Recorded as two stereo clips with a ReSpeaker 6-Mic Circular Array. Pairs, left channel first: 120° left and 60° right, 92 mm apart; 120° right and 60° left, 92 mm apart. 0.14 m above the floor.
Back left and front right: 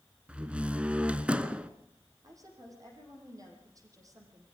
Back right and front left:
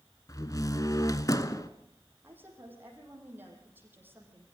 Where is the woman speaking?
10° right, 5.5 m.